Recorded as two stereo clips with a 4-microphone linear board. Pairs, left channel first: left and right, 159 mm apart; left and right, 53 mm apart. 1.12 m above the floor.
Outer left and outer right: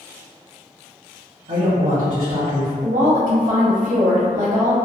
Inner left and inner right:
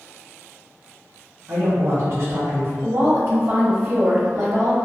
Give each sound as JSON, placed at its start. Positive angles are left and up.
{"t": 1.5, "sound": "a man speaking", "side_deg": -45, "distance_m": 0.7}
{"t": 2.8, "sound": "a woman speaking", "side_deg": -45, "distance_m": 0.6}